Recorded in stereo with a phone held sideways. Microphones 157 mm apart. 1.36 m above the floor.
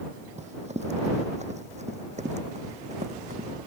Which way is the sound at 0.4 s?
45° right (ahead or behind).